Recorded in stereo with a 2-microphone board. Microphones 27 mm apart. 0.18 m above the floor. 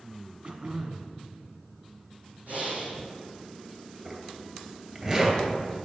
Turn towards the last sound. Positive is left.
turn(degrees=-25)  # may be behind; listen again after turning